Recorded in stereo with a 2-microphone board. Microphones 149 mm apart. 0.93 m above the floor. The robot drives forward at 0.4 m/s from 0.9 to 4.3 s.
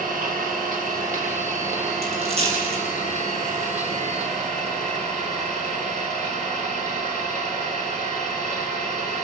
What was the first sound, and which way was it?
An engine running, 75° right (ahead or behind).